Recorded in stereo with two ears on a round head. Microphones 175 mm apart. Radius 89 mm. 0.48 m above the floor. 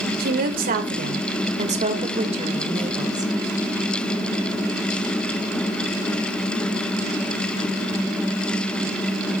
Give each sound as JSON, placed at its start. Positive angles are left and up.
{"t": 0.2, "sound": "a woman speaking", "side_deg": -50, "distance_m": 2.0}